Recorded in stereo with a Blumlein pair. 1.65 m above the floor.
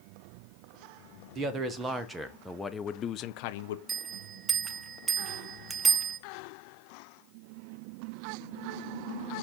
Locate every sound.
1.4 s a man speaking: 25° right, 1.3 m; by 3.8 s 60° left, 0.8 m
3.9 s a bell: 15° right, 1.0 m